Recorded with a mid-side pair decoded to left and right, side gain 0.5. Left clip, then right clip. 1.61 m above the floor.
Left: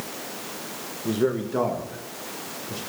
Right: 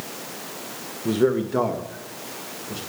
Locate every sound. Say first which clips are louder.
1.1 s a man speaking: right 4 dB; 25° right, 1.2 m; by 2.8 s 10° right, 3.5 m